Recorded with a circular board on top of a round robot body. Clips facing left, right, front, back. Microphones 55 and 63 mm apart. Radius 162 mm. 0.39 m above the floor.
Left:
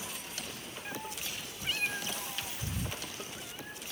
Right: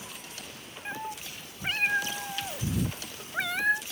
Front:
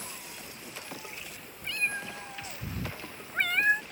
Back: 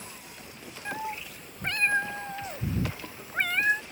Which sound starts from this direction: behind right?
A cat meowing, at 0.8 s.